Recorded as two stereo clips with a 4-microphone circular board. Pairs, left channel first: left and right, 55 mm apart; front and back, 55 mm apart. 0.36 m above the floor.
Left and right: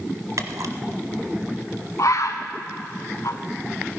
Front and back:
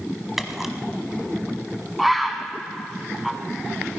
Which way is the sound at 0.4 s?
95° right.